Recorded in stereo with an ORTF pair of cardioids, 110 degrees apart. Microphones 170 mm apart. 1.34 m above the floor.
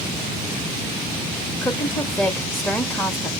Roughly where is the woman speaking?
Ahead.